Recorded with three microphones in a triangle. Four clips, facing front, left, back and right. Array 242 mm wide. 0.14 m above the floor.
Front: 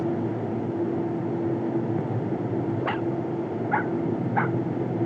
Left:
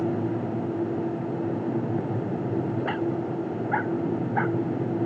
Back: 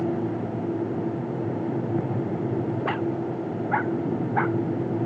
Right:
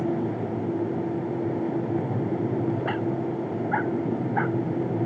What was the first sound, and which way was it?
Only background noise.